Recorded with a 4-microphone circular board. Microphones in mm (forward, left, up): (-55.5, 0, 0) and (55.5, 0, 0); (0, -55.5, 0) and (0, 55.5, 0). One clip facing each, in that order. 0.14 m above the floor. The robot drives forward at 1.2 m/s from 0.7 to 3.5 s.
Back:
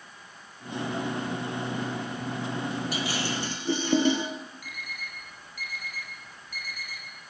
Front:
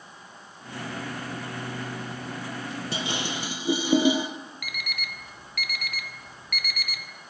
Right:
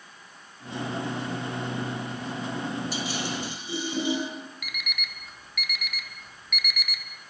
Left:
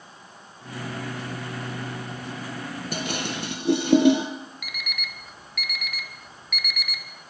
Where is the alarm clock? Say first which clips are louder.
Front 4 dB, left 1 dB; straight ahead, 1.6 m.